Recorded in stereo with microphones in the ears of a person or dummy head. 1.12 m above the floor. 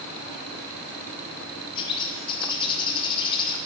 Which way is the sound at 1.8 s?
25° left (ahead or behind).